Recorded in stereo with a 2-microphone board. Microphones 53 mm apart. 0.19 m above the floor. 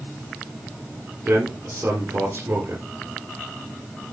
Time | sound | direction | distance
1.2 | a man speaking | 30° right (ahead or behind) | 3.5 m